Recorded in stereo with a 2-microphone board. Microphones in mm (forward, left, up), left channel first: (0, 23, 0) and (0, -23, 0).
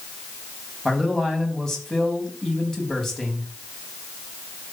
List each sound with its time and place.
0.8 s a man speaking: 10° left (ahead or behind), 3 m